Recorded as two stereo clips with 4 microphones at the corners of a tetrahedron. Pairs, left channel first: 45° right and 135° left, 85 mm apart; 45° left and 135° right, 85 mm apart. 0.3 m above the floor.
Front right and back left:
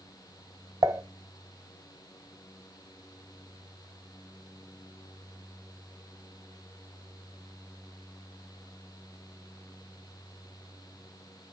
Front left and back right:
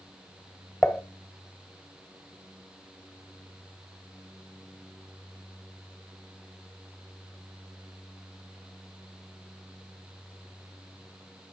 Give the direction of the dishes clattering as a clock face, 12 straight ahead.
8 o'clock.